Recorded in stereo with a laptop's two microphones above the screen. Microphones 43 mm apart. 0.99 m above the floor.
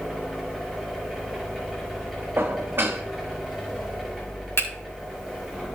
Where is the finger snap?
75° left (ahead or behind), 2.5 m.